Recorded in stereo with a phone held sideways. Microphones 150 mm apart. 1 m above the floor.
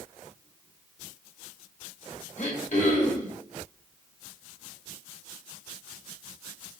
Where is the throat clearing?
60° left (ahead or behind), 1.9 m.